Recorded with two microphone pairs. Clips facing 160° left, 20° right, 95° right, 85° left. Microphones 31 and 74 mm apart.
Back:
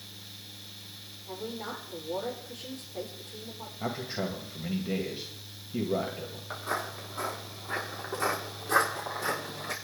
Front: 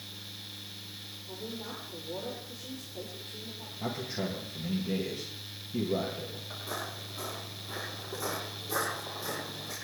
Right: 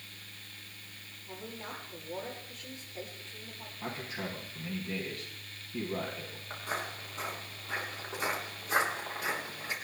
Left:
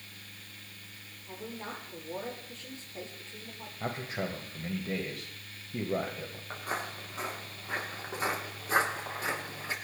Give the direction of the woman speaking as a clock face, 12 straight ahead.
7 o'clock.